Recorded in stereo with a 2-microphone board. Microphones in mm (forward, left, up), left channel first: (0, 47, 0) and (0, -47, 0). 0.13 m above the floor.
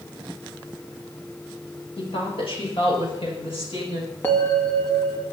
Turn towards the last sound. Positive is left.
turn(degrees=25)  # may be behind; listen again after turning